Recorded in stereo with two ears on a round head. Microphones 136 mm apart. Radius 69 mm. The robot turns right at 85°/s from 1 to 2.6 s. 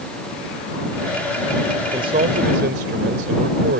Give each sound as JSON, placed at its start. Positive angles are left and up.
{"t": 1.8, "sound": "a man speaking", "azimuth_deg": -160}